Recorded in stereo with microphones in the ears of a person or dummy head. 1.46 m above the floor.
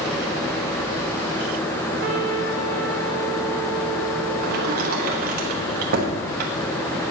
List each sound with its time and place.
2.0 s a trumpet: 65° right (ahead or behind), 1.5 m
4.4 s a sliding door: 45° right (ahead or behind), 1.2 m